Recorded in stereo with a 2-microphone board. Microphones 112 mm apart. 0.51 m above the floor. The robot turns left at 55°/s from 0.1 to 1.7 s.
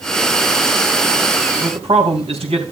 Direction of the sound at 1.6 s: 55° right (ahead or behind).